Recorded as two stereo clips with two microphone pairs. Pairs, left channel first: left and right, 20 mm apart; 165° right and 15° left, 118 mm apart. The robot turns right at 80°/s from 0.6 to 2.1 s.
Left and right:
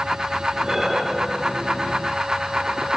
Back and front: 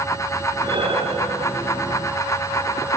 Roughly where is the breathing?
Ahead right.